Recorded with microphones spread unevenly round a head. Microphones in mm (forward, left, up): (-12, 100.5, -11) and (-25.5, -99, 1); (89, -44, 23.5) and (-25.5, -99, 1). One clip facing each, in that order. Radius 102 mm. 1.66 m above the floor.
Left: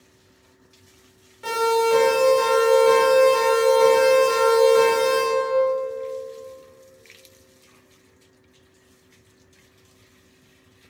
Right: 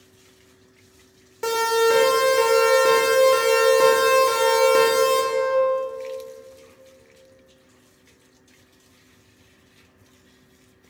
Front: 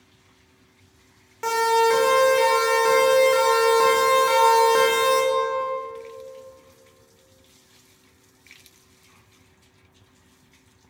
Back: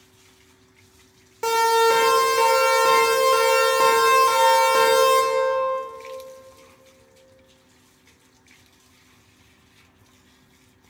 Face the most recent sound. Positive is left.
turn(degrees=-60)